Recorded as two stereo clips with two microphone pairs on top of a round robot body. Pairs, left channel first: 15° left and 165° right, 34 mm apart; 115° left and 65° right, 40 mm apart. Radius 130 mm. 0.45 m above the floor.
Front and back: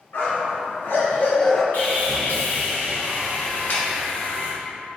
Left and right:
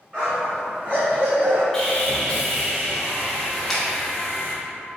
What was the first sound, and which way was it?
A dog barking, straight ahead.